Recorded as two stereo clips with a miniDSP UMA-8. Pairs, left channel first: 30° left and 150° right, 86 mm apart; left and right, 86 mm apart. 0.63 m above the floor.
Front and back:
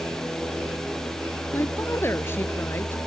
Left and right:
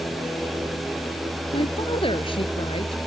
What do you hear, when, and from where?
1.5 s a woman speaking: 95° left